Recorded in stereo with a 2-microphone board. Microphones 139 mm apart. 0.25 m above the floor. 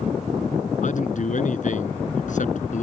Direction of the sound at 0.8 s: 65° left (ahead or behind).